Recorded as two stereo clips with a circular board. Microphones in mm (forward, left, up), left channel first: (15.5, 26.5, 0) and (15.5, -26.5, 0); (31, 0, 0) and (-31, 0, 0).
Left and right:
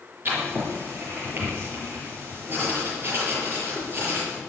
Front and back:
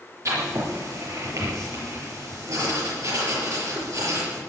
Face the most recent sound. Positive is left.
turn(degrees=-145)